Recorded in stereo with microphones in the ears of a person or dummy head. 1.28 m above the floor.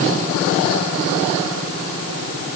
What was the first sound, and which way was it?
Only background noise.